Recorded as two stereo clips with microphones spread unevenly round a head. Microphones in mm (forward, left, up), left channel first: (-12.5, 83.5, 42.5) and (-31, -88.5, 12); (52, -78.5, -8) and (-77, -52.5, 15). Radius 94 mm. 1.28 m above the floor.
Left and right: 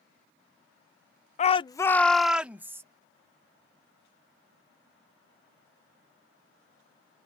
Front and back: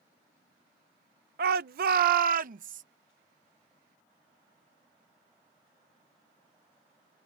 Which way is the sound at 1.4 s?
135° left.